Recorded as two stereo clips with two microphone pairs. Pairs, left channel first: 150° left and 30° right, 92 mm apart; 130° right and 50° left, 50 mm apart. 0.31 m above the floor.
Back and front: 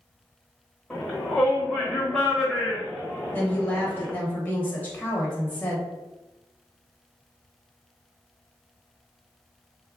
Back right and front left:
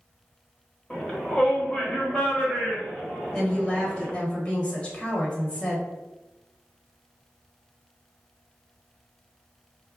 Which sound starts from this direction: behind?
A woman speaking, at 3.3 s.